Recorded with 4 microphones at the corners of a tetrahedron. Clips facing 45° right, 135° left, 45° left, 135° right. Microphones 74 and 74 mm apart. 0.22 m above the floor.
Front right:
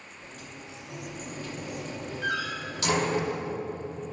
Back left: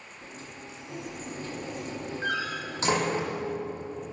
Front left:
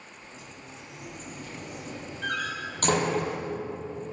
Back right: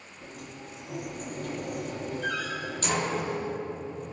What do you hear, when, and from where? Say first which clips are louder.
0.2 s a sliding door: back left 1 dB, back right 6 dB; 165° right, 5.5 m
2.2 s a door slam: front right 1 dB, front left 3 dB; 75° left, 7 m